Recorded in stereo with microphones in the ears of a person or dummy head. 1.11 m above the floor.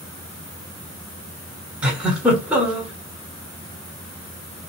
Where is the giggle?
5° right (ahead or behind), 1.5 m.